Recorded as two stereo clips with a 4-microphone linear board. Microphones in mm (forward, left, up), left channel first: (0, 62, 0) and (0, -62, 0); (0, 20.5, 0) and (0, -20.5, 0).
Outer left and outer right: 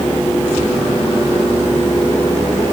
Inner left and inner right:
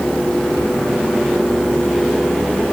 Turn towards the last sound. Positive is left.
No sound to turn to.